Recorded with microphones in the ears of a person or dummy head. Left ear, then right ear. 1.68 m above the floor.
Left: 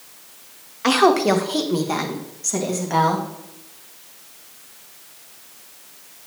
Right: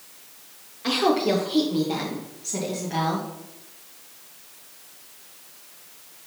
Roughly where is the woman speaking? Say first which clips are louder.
Left 6 dB; left.